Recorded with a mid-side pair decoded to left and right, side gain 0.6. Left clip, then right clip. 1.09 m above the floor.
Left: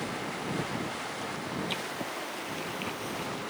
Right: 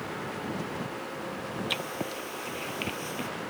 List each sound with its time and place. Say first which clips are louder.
1.7 s writing: right 2 dB; 30° right